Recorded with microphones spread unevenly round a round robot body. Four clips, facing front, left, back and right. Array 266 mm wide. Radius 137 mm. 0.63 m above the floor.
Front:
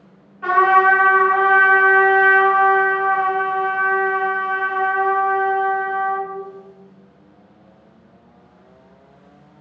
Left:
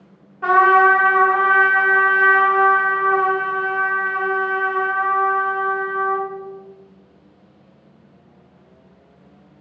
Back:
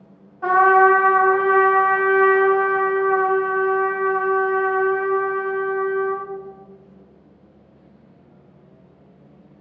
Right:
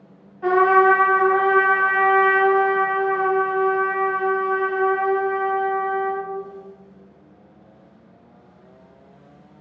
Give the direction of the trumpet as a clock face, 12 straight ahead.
8 o'clock.